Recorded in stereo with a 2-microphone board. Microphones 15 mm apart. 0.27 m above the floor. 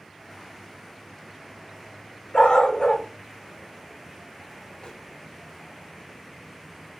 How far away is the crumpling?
About 0.9 m.